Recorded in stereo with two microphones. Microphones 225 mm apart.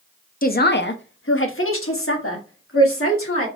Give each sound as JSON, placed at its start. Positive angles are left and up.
{"t": 0.4, "sound": "a man speaking", "side_deg": 40, "distance_m": 0.6}